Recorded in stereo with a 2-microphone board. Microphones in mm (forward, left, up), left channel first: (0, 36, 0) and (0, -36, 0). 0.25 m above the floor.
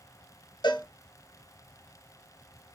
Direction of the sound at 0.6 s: 85° left.